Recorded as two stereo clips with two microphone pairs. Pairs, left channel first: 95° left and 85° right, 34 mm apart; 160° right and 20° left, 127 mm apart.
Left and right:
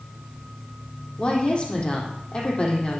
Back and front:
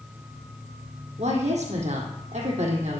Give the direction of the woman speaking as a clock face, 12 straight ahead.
11 o'clock.